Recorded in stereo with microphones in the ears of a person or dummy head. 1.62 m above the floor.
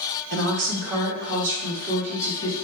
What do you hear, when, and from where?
0.3 s a woman speaking: 60° right (ahead or behind), 0.6 m; by 2.5 s 75° right (ahead or behind), 2 m